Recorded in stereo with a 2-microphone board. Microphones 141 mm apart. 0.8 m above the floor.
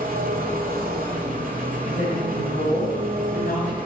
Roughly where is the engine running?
Right.